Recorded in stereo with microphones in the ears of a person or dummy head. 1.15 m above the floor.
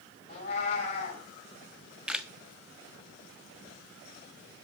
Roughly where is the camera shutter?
Centre.